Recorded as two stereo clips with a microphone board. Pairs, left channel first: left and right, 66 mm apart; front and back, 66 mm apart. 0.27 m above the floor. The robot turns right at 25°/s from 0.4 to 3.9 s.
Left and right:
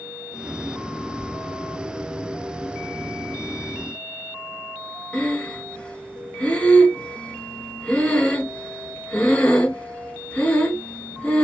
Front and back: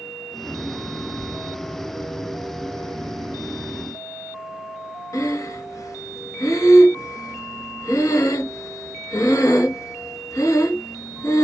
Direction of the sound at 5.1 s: 20° left.